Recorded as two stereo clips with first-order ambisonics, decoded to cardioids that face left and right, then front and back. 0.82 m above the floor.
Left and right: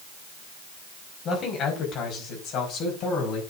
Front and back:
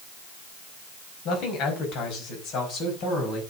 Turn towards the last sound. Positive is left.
turn(degrees=50)